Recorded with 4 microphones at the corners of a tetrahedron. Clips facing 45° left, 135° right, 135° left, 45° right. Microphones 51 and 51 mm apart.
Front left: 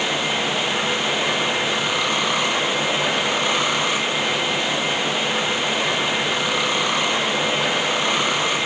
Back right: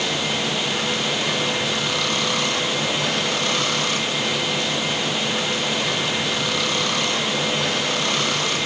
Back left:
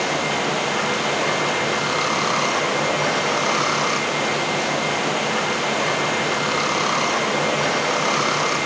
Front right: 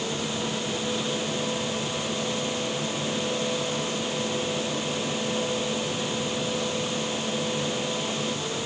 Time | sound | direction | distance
0.0 | running water | 115° left | ?